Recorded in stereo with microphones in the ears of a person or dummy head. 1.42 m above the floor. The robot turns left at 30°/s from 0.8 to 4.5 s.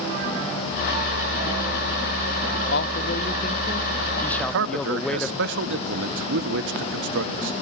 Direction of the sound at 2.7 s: 55° left.